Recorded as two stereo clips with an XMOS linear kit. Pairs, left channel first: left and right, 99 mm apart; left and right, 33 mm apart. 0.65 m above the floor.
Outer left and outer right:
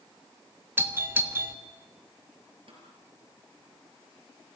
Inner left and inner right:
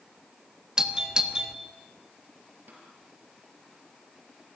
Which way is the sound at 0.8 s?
20° right (ahead or behind).